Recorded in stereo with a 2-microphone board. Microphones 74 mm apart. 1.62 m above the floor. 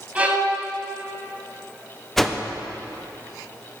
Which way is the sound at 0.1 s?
20° right (ahead or behind).